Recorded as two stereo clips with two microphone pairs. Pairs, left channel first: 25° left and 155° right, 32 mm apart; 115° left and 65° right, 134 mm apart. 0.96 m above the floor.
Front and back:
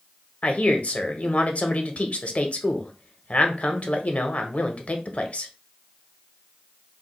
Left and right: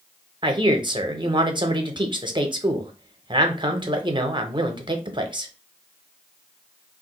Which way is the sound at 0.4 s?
15° right.